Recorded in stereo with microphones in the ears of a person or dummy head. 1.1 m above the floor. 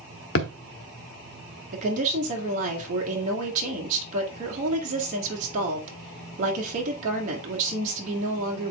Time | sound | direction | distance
0.3 | a thud | 55° left (ahead or behind) | 1.1 m
1.7 | a woman speaking | 45° right (ahead or behind) | 2 m